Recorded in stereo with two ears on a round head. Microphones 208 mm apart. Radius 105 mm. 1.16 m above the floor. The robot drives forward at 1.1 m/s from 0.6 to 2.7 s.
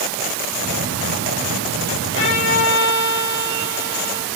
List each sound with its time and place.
2.1 s a violin: 65° left (ahead or behind), 3.5 m; by 4.3 s 55° left (ahead or behind), 4 m